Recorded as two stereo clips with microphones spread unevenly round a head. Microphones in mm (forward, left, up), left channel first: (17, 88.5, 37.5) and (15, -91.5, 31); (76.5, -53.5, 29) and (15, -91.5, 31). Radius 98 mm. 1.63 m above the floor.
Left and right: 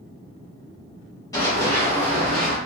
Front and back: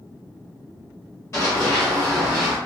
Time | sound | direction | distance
1.3 | running footsteps | 35° left | 1.9 m